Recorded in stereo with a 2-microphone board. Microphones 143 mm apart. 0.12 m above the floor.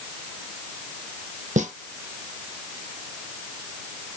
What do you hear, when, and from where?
1.6 s a snare drum: 60° right (ahead or behind), 1.2 m